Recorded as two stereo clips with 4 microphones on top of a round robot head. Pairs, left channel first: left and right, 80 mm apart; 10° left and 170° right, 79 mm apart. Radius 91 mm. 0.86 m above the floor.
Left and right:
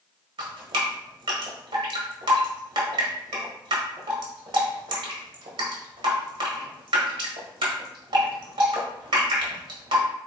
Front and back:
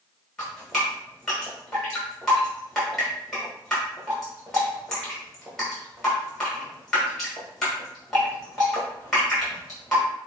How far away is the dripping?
About 1.0 m.